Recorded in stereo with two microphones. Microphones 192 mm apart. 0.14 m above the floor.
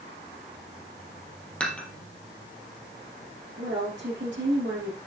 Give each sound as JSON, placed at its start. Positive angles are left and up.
{"t": 1.6, "sound": "dishes clattering", "side_deg": 5, "distance_m": 3.0}
{"t": 3.6, "sound": "a woman speaking", "side_deg": -70, "distance_m": 3.5}